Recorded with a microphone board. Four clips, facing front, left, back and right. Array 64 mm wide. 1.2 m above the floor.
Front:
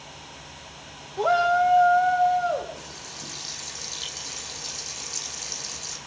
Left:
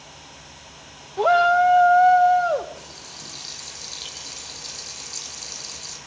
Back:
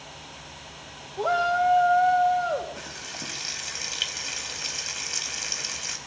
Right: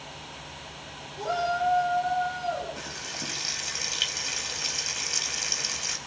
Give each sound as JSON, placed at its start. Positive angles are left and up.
{"t": 1.2, "sound": "a shout", "azimuth_deg": 80, "distance_m": 1.3}
{"t": 2.8, "sound": "frying", "azimuth_deg": -145, "distance_m": 4.5}